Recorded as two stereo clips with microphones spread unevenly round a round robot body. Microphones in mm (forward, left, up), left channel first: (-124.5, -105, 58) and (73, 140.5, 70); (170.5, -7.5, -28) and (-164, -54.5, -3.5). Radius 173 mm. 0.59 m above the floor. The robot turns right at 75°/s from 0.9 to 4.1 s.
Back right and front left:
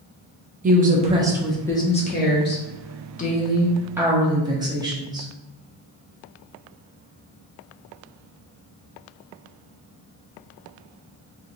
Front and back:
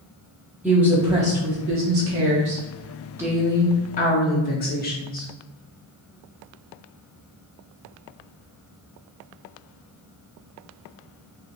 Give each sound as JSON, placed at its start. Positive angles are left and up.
{"t": 0.6, "sound": "a woman speaking", "azimuth_deg": 100, "distance_m": 0.7}